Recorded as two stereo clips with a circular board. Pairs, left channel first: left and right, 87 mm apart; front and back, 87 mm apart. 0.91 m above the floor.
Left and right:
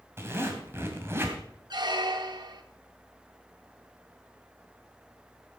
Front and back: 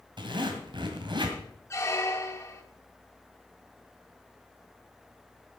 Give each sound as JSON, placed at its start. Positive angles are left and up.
{"t": 0.2, "sound": "a zipper", "azimuth_deg": -150, "distance_m": 2.0}
{"t": 1.7, "sound": "a squeak", "azimuth_deg": -55, "distance_m": 1.3}